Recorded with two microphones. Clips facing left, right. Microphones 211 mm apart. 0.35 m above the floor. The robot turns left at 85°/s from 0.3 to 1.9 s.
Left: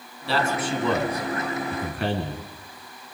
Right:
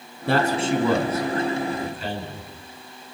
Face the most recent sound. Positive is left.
turn(degrees=100)